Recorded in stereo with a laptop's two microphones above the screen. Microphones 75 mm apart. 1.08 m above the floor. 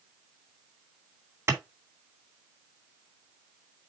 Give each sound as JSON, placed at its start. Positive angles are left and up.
{"t": 1.5, "sound": "a clap", "side_deg": -35, "distance_m": 2.5}